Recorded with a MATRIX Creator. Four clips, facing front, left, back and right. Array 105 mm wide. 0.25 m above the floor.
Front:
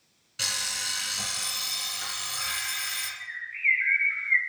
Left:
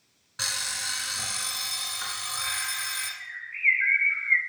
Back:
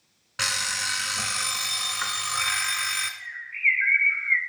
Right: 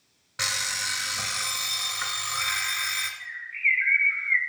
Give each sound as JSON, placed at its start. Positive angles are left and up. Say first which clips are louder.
{"t": 0.4, "sound": "an alarm clock", "louder": "right 3 dB, back 6 dB", "azimuth_deg": -165, "distance_m": 1.1}
{"t": 3.2, "sound": "a bird", "louder": "left 3 dB, even", "azimuth_deg": 165, "distance_m": 1.4}